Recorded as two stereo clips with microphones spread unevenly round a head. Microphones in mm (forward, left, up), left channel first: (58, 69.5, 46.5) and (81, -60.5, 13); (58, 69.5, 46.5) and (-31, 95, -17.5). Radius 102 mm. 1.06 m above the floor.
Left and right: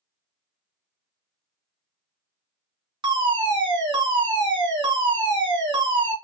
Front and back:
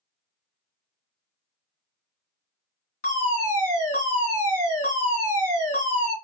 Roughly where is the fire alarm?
Ahead right.